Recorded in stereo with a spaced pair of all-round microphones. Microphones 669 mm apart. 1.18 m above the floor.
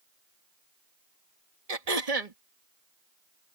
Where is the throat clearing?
65° right (ahead or behind).